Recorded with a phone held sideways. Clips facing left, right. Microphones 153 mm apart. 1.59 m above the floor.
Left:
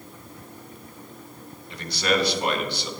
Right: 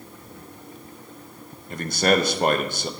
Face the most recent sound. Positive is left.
turn(degrees=-45)  # may be behind; listen again after turning